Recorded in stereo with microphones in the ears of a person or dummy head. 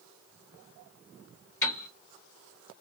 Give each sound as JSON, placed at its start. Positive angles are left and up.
{"t": 1.6, "sound": "a piano", "side_deg": 20, "distance_m": 2.5}